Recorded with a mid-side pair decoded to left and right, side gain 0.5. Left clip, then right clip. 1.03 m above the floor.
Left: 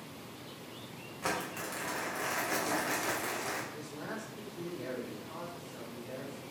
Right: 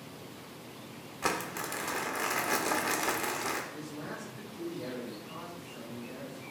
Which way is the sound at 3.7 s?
20° left.